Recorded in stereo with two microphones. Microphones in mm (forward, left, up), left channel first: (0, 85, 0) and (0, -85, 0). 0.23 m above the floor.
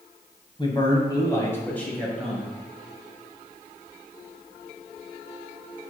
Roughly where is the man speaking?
Left.